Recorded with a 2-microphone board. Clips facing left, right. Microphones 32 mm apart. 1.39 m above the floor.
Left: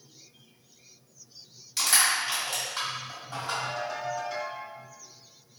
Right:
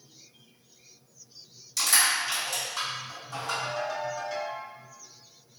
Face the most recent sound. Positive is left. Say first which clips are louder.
# right 1 dB
turn(degrees=5)  # may be behind; listen again after turning